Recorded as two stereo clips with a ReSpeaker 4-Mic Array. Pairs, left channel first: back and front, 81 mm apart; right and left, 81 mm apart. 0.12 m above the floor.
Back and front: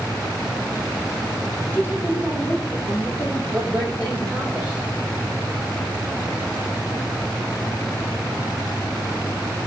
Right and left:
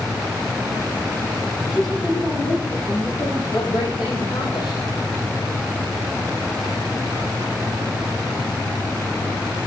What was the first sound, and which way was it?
A woman speaking, 120° right.